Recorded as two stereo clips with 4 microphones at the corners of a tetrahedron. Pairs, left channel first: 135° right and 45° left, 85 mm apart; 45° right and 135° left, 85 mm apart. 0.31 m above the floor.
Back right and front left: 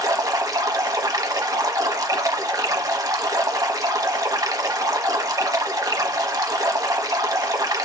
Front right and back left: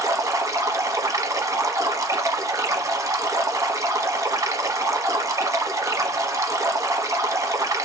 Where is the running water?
90° left, 0.8 m.